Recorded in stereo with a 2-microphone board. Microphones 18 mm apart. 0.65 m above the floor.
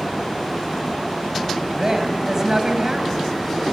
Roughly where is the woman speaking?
Right.